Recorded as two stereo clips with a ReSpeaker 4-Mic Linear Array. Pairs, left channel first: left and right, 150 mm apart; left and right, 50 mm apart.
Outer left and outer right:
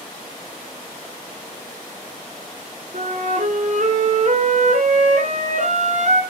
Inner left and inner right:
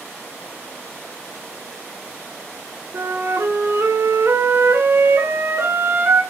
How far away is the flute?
About 2 m.